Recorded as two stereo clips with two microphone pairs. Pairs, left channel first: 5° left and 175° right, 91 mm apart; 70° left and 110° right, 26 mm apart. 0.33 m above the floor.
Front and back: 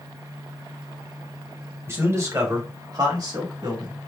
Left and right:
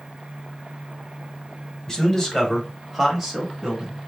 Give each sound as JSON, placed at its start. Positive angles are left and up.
{"t": 1.9, "sound": "a man speaking", "azimuth_deg": 135, "distance_m": 1.6}